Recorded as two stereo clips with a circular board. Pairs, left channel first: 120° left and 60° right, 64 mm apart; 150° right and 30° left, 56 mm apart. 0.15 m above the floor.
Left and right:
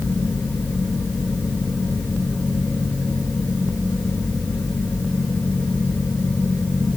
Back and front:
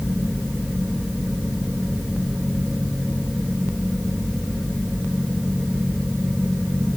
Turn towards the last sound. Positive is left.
No sound to turn to.